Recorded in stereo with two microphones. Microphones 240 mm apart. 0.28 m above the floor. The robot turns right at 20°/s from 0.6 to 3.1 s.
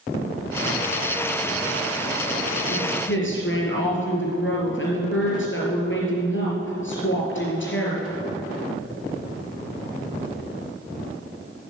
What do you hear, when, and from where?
2.7 s a woman speaking: 60° left (ahead or behind), 4.5 m; by 8.1 s 55° left (ahead or behind), 4.5 m